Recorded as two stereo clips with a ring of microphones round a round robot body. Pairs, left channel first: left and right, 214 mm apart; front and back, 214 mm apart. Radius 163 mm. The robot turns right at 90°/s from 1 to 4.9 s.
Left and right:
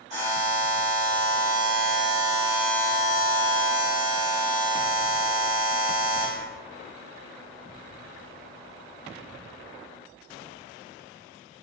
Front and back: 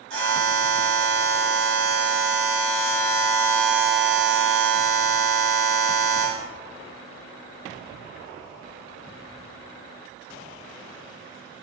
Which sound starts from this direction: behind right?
A buzzer, at 0.1 s.